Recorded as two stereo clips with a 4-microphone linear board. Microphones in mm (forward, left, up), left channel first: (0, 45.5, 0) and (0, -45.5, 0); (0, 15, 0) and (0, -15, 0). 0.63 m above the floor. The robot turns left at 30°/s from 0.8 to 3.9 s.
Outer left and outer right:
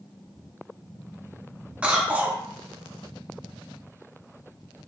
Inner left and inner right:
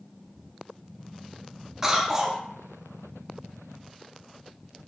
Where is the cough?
15° right (ahead or behind), 0.5 m; by 2.4 s 20° right (ahead or behind), 0.5 m.